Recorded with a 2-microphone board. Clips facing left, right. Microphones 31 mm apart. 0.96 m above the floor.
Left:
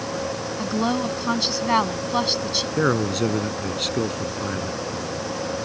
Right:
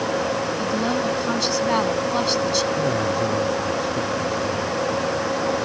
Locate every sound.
0.6 s a woman speaking: 15° left (ahead or behind)
2.8 s a man speaking: 75° left (ahead or behind)